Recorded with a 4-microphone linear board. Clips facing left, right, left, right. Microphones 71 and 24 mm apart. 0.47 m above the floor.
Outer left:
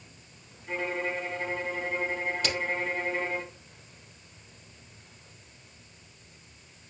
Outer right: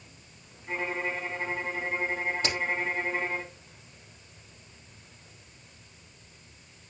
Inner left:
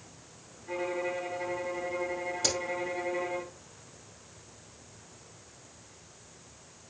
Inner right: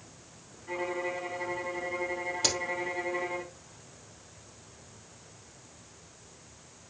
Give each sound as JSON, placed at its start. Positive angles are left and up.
{"t": 0.7, "sound": "a violin", "side_deg": -20, "distance_m": 3.0}
{"t": 2.4, "sound": "a crack", "side_deg": -30, "distance_m": 4.5}